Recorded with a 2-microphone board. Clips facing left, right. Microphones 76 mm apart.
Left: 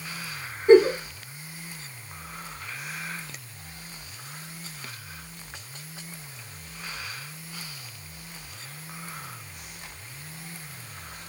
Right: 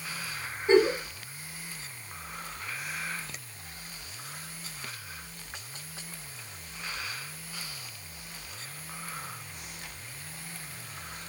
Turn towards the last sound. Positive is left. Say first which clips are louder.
# left 7 dB
turn(degrees=50)  # may be behind; listen again after turning